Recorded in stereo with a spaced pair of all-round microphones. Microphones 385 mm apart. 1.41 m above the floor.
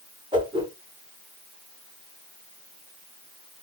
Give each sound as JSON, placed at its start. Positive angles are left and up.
{"t": 0.3, "sound": "a whoosh", "side_deg": -10, "distance_m": 1.1}